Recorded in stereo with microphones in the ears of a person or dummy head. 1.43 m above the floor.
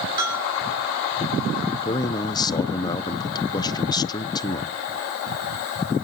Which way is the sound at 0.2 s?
25° right (ahead or behind).